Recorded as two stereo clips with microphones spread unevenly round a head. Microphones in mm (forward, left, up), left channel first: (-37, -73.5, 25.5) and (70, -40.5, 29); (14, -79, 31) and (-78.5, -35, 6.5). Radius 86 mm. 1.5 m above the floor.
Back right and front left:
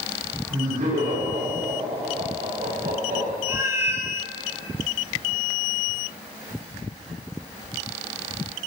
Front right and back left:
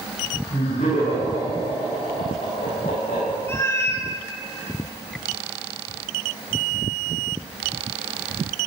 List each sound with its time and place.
0.5 s laughter: 15° left, 6 m
3.5 s a cat meowing: 30° right, 1.2 m